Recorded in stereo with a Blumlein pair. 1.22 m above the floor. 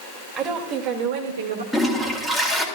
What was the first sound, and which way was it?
A woman speaking, 25° right.